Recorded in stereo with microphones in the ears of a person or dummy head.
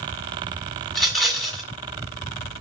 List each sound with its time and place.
0.9 s a rattle: centre (ahead or behind), 2 m